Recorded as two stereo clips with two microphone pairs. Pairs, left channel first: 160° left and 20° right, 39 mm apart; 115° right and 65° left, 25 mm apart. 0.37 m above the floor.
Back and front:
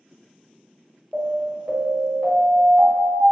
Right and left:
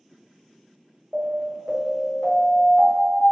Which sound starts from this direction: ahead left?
An alarm, at 1.1 s.